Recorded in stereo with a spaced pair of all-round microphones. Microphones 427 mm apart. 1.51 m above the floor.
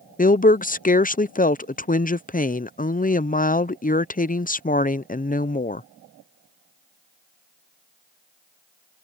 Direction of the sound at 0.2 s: 20° left (ahead or behind).